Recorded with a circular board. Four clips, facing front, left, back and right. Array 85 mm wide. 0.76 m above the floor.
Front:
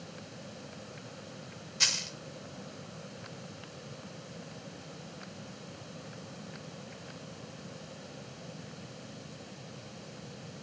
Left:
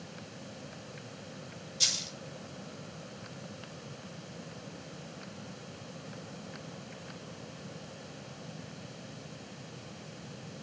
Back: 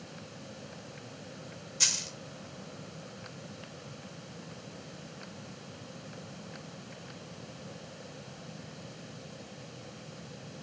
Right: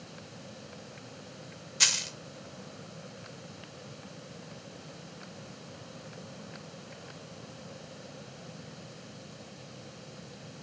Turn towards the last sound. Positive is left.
turn(degrees=-75)